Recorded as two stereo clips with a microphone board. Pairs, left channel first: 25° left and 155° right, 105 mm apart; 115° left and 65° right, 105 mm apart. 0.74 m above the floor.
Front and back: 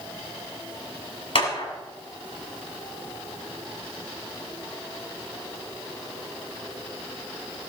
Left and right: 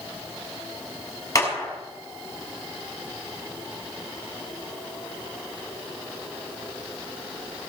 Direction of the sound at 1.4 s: 55° left.